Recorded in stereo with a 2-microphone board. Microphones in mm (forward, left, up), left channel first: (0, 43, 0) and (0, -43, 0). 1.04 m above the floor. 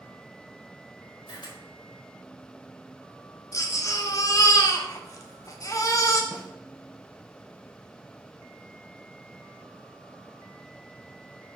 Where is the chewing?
I don't hear chewing.